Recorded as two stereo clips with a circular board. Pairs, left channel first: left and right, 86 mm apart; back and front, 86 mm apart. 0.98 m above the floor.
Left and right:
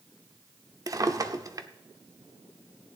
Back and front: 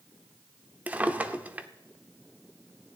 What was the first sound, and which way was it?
A drawer, 65° right.